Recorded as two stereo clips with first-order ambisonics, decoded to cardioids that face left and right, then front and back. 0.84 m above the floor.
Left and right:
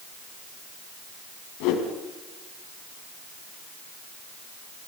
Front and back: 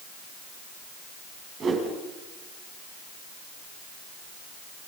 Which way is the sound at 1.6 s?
115° left.